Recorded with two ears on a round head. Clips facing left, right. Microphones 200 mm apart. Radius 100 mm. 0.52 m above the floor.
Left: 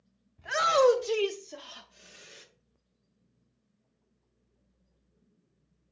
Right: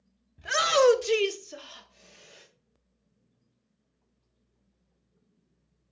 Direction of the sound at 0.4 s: 45° right (ahead or behind).